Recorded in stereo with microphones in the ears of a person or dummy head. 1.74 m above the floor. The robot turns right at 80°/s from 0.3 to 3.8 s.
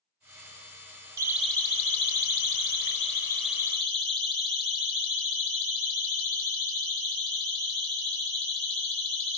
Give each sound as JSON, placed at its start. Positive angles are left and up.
{"t": 1.2, "sound": "a siren", "side_deg": -15, "distance_m": 5.0}